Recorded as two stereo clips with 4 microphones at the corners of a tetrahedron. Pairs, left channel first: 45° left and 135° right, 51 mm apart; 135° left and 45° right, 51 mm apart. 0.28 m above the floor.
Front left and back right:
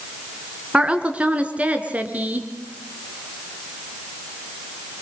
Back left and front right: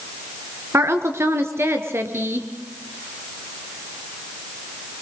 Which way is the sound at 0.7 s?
70° right.